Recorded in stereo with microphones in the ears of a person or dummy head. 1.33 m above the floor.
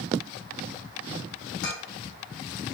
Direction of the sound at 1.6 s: 70° left (ahead or behind).